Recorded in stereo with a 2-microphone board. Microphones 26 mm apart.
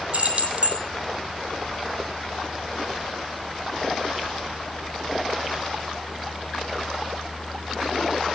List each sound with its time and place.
0.1 s keys jangling: 50° right (ahead or behind), 2.5 m